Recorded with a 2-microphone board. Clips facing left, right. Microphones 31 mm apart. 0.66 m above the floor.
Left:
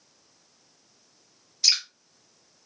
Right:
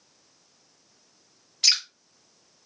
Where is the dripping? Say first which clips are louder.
Right 1 dB; 65° right (ahead or behind), 0.9 m.